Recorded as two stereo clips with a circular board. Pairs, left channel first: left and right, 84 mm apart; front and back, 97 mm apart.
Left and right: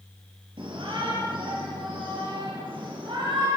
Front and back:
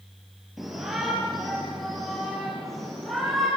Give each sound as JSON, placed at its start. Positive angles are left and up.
{"t": 0.6, "sound": "a shout", "azimuth_deg": -95, "distance_m": 6.0}